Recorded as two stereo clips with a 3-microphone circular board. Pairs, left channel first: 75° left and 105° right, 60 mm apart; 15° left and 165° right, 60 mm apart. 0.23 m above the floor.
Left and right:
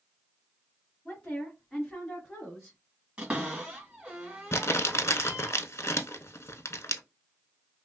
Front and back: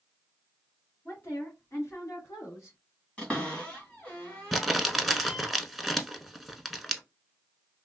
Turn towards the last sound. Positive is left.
turn(degrees=105)